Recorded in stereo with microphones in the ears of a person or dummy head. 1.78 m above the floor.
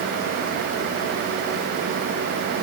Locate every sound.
Only background noise.